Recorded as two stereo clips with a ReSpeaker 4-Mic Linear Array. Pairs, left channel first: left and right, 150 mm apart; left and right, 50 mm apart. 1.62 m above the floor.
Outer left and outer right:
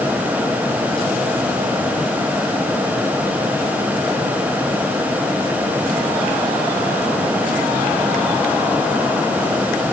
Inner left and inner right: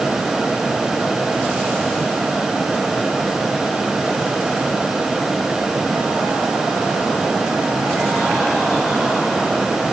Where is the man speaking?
No man speaking in this recording.